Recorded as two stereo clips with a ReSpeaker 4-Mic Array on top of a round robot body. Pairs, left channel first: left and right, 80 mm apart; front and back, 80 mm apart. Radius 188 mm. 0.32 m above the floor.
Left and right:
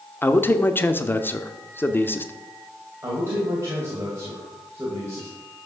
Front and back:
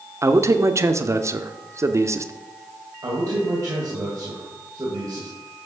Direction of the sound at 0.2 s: 145° left.